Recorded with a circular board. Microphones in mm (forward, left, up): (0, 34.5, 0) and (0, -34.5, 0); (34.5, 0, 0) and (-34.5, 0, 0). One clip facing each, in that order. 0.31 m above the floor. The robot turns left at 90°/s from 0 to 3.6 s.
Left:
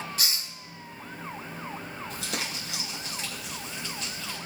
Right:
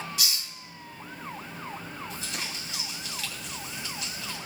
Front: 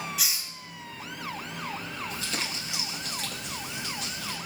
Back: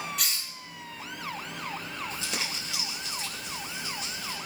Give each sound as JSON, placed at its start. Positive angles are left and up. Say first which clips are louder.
{"t": 0.2, "sound": "a hiss", "louder": "even, even", "azimuth_deg": 85, "distance_m": 1.0}
{"t": 2.1, "sound": "crumpling", "louder": "left 2 dB, front 1 dB", "azimuth_deg": 125, "distance_m": 7.0}